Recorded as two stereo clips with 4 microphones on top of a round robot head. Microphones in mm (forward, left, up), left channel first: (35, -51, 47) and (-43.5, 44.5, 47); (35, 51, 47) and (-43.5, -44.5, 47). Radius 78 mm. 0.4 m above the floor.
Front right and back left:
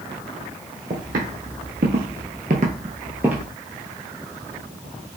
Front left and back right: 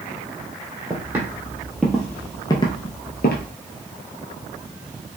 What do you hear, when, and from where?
0.9 s footsteps: 160° left, 1.1 m; by 3.5 s 45° left, 0.6 m